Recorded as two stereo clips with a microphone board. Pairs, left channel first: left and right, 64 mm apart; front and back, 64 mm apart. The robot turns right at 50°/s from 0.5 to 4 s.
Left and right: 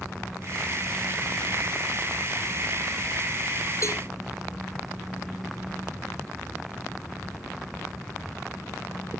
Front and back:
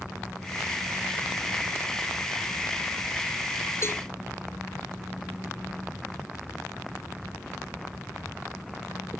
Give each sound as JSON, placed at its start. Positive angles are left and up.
{"t": 3.8, "sound": "a cowbell", "azimuth_deg": 50}